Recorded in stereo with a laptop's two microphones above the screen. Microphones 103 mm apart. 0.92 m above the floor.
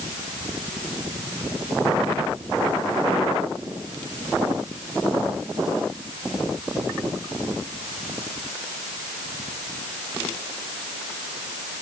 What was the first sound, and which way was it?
Only background noise.